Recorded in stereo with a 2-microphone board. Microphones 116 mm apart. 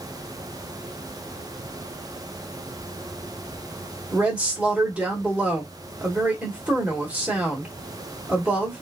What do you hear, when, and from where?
4.1 s a woman speaking: 10° right (ahead or behind), 1.4 m